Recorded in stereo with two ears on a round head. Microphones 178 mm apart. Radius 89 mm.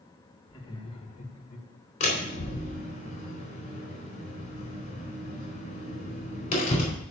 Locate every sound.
0.5 s laughter: 20° left (ahead or behind), 2 m; by 1.7 s 45° left (ahead or behind), 1.9 m
2.0 s a door slam: 35° left (ahead or behind), 4 m